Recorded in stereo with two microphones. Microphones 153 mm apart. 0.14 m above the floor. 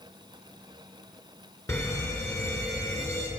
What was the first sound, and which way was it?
An alarm, 20° left (ahead or behind).